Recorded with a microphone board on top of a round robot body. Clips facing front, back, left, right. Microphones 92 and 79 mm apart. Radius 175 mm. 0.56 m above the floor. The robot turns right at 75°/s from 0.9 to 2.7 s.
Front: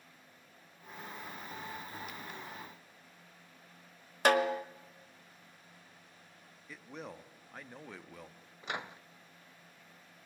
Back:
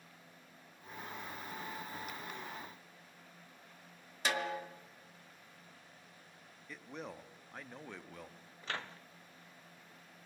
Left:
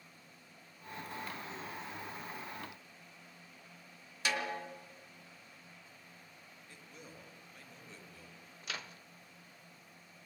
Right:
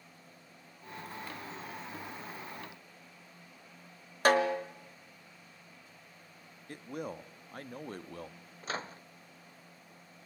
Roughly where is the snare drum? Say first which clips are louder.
Front 9 dB, right 11 dB; ahead right.